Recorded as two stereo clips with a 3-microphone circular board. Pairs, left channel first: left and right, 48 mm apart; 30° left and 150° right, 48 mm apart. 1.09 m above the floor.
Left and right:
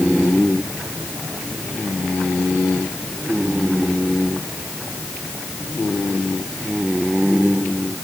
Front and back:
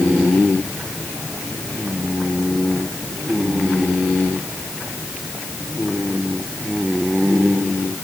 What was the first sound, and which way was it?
Only background noise.